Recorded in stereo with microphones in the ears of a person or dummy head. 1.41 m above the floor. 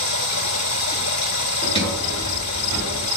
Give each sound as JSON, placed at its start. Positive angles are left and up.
{"t": 0.0, "sound": "running water", "side_deg": 80, "distance_m": 2.0}
{"t": 1.6, "sound": "a sliding door", "side_deg": 30, "distance_m": 3.5}